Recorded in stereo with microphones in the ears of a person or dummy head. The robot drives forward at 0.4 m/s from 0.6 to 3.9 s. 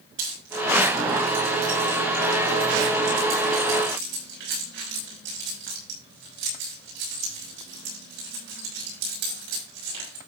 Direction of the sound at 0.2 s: 85° right.